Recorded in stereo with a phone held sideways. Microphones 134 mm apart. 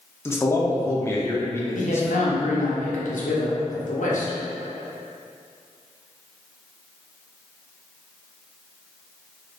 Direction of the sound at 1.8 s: 75° left (ahead or behind).